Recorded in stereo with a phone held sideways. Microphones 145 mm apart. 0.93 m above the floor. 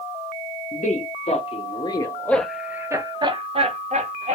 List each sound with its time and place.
0.7 s a man speaking: 60° left (ahead or behind), 1.2 m; by 4.3 s 55° right (ahead or behind), 1.3 m